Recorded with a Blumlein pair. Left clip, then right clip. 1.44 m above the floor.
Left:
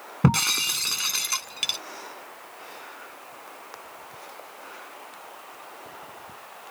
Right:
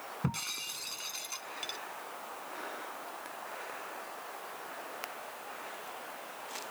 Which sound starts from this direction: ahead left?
Breaking glass, at 0.2 s.